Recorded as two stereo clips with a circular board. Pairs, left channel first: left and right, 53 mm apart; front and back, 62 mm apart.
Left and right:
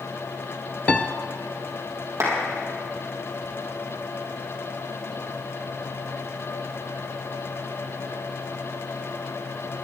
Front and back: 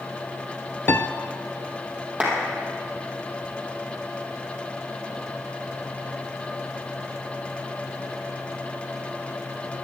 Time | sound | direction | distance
0.9 | a piano | 35° left | 0.6 m
2.2 | a clap | 115° right | 3.5 m